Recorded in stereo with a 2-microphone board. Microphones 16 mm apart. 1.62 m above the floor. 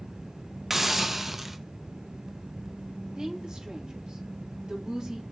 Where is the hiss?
20° right (ahead or behind), 0.8 m.